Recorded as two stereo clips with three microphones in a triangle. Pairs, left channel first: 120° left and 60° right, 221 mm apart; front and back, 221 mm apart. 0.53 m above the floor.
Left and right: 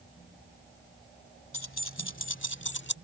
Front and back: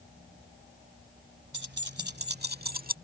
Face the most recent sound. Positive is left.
turn(degrees=140)